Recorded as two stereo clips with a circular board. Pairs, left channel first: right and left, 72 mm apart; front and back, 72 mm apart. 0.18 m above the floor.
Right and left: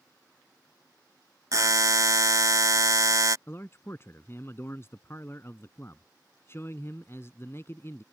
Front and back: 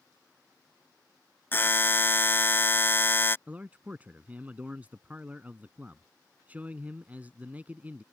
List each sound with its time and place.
1.5 s a buzzer: 55° left
3.5 s a man speaking: 125° right